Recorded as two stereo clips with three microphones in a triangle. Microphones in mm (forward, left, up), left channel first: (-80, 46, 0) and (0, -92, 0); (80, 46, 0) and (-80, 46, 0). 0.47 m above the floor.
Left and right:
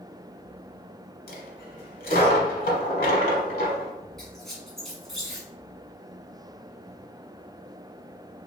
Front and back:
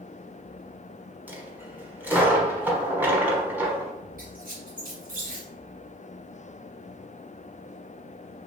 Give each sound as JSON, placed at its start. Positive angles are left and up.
{"t": 1.3, "sound": "a dropped coin", "azimuth_deg": 100, "distance_m": 1.0}
{"t": 4.2, "sound": "a squeak", "azimuth_deg": -150, "distance_m": 1.2}